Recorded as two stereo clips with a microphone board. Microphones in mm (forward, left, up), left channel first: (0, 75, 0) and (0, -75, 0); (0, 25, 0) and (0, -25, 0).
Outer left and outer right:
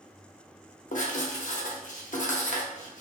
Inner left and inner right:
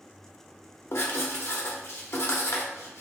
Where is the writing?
60° left (ahead or behind), 0.6 m.